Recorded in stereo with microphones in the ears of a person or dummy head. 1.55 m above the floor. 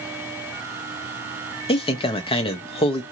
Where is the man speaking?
25° left (ahead or behind), 0.5 m.